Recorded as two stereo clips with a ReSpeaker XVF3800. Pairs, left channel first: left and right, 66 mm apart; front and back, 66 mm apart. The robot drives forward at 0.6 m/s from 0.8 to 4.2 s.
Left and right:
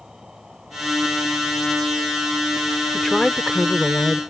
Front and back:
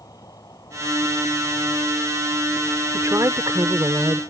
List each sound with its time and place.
0.0 s an insect: 10° right; by 4.3 s 15° right
2.9 s a woman speaking: 170° left